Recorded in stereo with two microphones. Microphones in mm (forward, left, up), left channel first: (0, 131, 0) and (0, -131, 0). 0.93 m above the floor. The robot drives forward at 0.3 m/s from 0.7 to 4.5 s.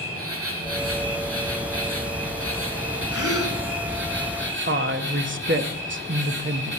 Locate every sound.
0.0 s an insect: 60° right (ahead or behind), 2.5 m; by 6.8 s 45° right (ahead or behind), 3 m
3.1 s a gasp: 60° left (ahead or behind), 1.6 m; by 3.6 s 55° left (ahead or behind), 1.6 m
4.7 s a woman speaking: 45° right (ahead or behind), 1.0 m